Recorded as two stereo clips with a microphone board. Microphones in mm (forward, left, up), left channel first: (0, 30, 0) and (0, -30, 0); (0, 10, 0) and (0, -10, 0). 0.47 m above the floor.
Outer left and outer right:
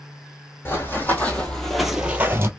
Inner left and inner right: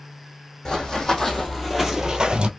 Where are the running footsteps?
35° left (ahead or behind), 1.6 m; by 2.5 s 45° right (ahead or behind), 0.8 m.